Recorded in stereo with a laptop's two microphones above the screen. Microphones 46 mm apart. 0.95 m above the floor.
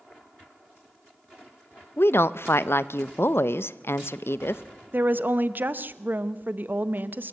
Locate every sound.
2.0 s a woman speaking: 65° left (ahead or behind), 0.6 m
4.9 s a woman speaking: 45° right (ahead or behind), 0.6 m